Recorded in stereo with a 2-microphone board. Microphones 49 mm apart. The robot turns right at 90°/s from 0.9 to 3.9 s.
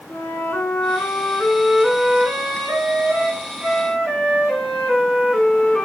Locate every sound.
0.1 s a flute: 90° left, 8.5 m; by 5.8 s straight ahead, 8.5 m